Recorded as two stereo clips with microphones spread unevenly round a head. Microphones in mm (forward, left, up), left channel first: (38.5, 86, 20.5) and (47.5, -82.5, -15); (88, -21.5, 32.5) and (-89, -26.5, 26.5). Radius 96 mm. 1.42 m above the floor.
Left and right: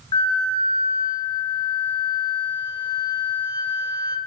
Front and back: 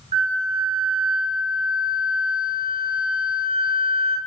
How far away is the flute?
About 1.2 m.